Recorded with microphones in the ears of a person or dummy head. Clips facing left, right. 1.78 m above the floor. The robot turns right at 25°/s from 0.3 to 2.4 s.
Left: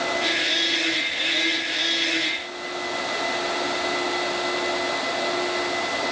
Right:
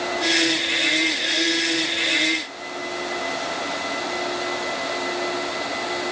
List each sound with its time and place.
Only background noise.